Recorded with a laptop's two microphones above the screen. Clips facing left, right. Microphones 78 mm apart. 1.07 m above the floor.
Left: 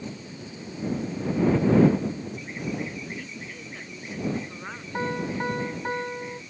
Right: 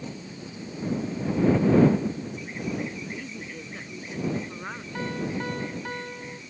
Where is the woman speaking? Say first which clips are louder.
Right 1 dB; 10° right (ahead or behind).